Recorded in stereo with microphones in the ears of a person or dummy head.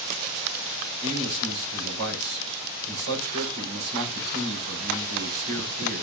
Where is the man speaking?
85° right, 4.5 m.